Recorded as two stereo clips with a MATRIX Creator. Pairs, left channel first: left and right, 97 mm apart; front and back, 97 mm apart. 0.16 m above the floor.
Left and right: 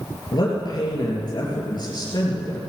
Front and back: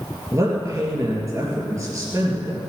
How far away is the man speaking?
About 3 m.